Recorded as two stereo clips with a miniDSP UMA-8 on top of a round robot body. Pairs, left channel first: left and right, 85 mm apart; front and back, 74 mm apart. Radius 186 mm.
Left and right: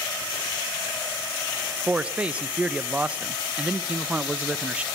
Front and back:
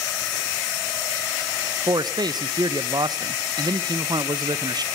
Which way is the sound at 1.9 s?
165° right.